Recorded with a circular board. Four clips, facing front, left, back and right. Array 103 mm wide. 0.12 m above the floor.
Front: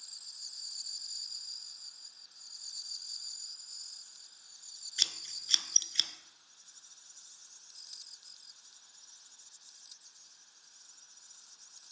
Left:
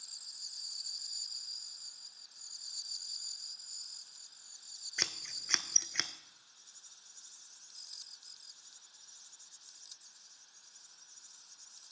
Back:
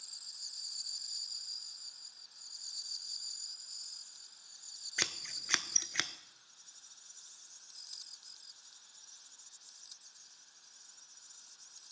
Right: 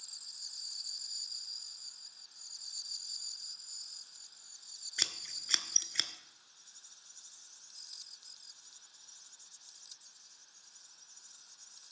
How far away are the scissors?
About 0.5 m.